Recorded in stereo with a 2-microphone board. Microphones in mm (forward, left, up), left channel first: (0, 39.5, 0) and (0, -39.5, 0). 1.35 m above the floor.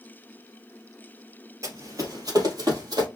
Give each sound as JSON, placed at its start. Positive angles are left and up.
{"t": 1.6, "sound": "running footsteps", "side_deg": -40, "distance_m": 1.8}